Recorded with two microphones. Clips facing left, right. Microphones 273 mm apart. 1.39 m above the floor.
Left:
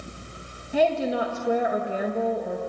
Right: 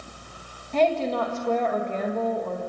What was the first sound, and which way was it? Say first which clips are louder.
A woman speaking: even; 10° left (ahead or behind).